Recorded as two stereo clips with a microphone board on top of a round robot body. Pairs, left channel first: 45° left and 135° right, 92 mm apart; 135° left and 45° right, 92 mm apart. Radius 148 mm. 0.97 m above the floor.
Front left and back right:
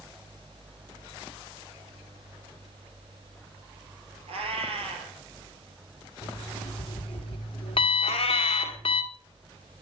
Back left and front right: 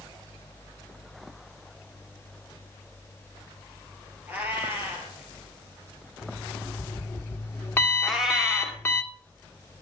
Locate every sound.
4.3 s a cat meowing: 115° right, 3 m
6.2 s an alarm clock: 70° left, 1.7 m
8.0 s a cat meowing: 40° left, 1.7 m